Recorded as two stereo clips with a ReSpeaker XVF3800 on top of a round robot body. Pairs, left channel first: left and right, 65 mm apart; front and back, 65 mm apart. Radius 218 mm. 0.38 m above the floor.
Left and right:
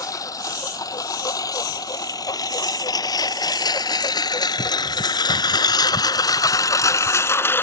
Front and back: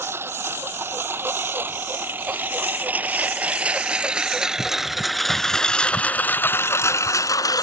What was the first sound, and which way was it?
A lawn mower, 125° left.